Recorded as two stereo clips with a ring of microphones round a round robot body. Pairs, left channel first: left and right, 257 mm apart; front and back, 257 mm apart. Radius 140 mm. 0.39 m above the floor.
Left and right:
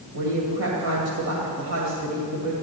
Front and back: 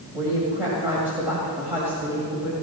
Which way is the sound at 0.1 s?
95° right.